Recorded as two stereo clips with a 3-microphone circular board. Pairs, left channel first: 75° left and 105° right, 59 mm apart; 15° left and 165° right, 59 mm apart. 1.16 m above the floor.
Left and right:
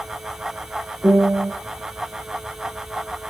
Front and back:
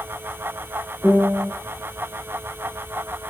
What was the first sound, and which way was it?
A piano, 60° right.